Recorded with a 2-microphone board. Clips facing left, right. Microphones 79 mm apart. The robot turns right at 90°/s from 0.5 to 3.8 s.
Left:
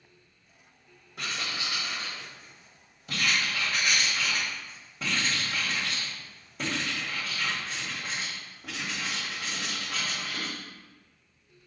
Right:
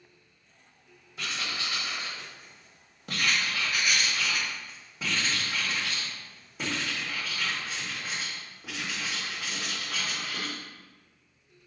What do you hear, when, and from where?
1.2 s writing: 120° left, 2 m; by 10.6 s straight ahead, 2 m